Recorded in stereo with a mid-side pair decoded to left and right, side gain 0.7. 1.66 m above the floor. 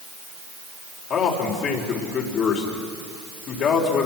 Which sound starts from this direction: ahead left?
A man speaking, at 1.1 s.